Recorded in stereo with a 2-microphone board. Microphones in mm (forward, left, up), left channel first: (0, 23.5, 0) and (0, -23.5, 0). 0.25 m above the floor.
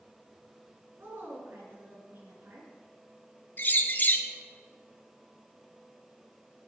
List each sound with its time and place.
1.0 s a woman speaking: 55° right (ahead or behind), 3.5 m
3.6 s a bird: 40° left (ahead or behind), 0.8 m